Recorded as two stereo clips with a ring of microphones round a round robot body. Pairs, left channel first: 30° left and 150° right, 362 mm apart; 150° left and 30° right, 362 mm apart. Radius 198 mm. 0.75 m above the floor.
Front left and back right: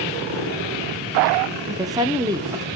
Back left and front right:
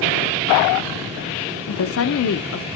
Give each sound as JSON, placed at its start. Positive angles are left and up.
{"t": 1.7, "sound": "a woman speaking", "azimuth_deg": 135, "distance_m": 0.7}